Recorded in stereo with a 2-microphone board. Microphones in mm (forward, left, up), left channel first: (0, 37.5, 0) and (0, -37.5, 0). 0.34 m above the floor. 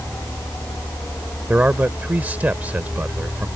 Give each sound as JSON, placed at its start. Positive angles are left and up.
{"t": 1.5, "sound": "a man speaking", "side_deg": -20}